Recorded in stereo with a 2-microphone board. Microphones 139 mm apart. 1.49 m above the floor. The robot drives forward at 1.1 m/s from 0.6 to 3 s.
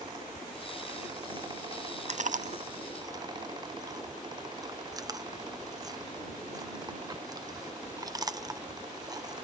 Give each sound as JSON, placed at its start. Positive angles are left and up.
{"t": 2.1, "sound": "chewing", "side_deg": -55}